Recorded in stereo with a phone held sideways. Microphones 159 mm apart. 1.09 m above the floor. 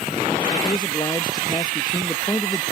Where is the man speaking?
25° left (ahead or behind).